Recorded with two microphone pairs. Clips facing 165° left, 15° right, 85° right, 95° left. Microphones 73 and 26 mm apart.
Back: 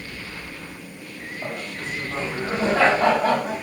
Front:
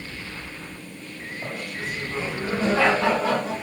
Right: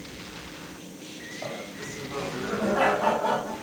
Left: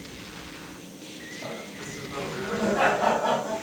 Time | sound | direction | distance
1.4 | laughter | 140° right | 1.9 m